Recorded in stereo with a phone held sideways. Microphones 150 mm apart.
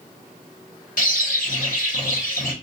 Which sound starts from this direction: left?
A bird, at 1.0 s.